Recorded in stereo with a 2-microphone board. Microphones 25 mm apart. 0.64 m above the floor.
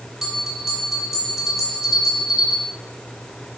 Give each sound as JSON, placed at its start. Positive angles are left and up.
{"t": 0.2, "sound": "a bell", "side_deg": -15, "distance_m": 1.0}